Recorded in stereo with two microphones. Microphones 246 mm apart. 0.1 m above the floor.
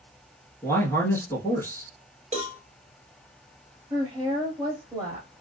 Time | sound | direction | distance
0.6 | a man speaking | 10° left (ahead or behind) | 1.3 m
2.3 | a cowbell | 30° right (ahead or behind) | 1.9 m
3.9 | a woman speaking | 15° right (ahead or behind) | 1.3 m